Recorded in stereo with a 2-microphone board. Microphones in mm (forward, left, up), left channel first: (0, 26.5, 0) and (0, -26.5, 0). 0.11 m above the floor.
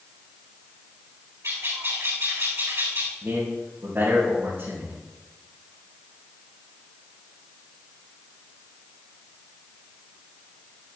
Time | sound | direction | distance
1.4 | a bird | 65° right (ahead or behind) | 4.5 m
3.2 | a man speaking | 35° right (ahead or behind) | 4.5 m